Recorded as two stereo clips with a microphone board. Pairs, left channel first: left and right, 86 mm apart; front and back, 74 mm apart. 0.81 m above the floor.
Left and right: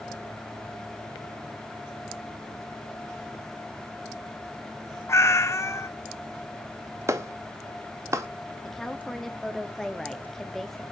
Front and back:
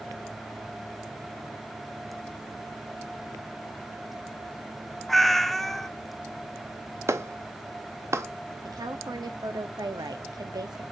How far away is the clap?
About 0.9 m.